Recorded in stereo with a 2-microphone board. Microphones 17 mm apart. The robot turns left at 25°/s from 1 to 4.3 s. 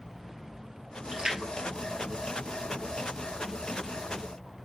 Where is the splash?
80° right, 2.5 m; by 3.1 s 30° right (ahead or behind), 2.5 m.